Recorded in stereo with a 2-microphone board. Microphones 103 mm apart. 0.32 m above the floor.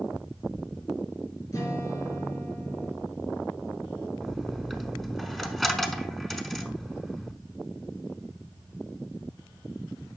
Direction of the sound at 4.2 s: Centre (ahead or behind).